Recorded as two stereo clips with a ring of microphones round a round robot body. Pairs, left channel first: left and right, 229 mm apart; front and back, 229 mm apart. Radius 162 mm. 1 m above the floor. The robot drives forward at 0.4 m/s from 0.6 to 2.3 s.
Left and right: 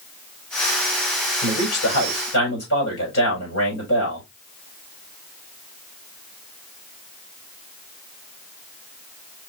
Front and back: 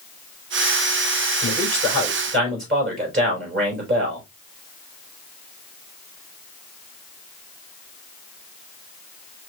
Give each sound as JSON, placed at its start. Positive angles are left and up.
{"t": 1.4, "sound": "a man speaking", "azimuth_deg": 145, "distance_m": 4.0}